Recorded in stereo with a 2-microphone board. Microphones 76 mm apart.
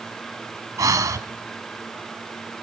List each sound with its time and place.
0.8 s breathing: 50° right (ahead or behind), 1.4 m